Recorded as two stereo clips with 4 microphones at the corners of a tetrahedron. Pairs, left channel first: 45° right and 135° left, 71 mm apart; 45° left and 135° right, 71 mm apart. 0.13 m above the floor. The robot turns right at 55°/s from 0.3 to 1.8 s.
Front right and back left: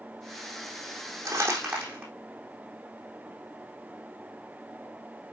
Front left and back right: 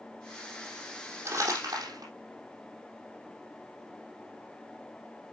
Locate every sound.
1.2 s crumpling: 170° left, 5 m; by 2.1 s 160° right, 5 m